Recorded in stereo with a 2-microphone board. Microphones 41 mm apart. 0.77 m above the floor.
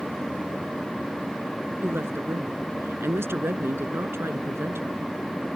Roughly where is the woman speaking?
Right.